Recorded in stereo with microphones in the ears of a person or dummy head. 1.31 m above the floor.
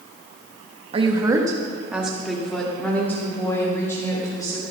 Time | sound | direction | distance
0.9 | a woman speaking | 25° right (ahead or behind) | 1.7 m